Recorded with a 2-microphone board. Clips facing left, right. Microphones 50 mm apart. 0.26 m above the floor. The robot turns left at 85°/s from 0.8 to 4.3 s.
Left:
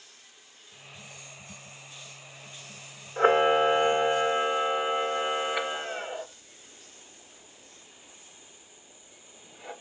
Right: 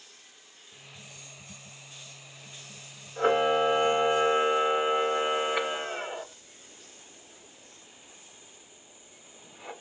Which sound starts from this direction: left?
A camera shutter, at 3.2 s.